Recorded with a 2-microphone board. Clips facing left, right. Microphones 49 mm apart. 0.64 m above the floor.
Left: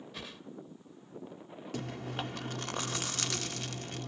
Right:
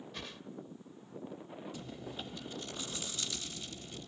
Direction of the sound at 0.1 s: 5° left (ahead or behind).